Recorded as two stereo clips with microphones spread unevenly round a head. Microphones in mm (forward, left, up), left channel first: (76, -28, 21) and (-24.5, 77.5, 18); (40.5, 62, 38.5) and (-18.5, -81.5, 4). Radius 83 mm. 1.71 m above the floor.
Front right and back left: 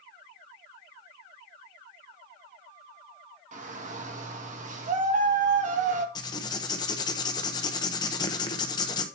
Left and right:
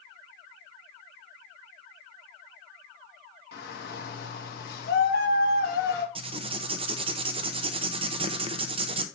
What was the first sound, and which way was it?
A shout, 95° left.